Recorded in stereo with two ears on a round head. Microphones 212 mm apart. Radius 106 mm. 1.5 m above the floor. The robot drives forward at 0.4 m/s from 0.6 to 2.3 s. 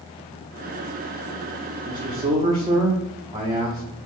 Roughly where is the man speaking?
Centre.